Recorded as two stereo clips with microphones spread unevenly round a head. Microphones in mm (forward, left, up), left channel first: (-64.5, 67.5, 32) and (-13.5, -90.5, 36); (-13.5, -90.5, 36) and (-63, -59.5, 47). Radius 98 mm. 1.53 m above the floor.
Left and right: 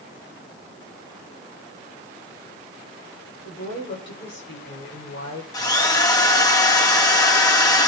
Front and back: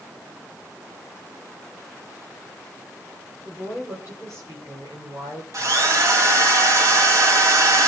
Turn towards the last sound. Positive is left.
turn(degrees=175)